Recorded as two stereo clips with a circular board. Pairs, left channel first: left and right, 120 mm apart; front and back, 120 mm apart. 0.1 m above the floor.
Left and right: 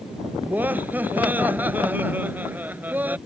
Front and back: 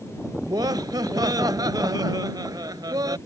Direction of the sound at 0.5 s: 155° right.